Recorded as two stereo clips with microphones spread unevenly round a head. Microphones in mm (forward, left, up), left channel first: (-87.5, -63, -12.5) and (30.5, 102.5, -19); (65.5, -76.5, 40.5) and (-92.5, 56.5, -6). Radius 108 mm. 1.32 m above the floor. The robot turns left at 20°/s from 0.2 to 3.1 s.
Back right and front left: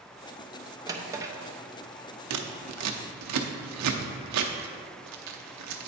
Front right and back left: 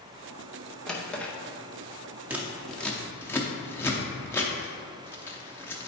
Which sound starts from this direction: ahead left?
Scissors, at 2.3 s.